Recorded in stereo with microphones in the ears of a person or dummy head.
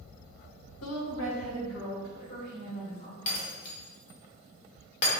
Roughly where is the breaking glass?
Left.